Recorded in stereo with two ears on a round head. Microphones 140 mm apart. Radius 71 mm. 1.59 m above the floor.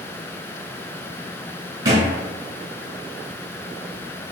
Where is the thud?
25° right (ahead or behind), 1.6 m.